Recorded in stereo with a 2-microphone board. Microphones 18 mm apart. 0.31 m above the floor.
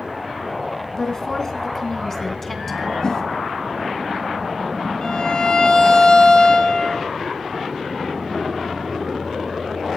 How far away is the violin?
About 2 m.